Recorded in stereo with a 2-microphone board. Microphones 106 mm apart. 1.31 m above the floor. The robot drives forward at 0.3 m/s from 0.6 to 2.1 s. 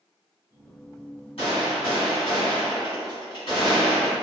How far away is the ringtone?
No ringtone in this recording.